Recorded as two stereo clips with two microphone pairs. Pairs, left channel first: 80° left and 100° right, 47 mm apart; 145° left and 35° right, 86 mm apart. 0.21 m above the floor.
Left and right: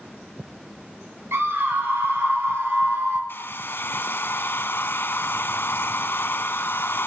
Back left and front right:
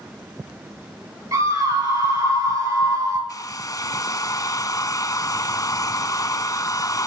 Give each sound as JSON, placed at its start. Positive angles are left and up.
{"t": 1.3, "sound": "a scream", "azimuth_deg": -85, "distance_m": 5.0}
{"t": 3.3, "sound": "a hair dryer", "azimuth_deg": 105, "distance_m": 0.5}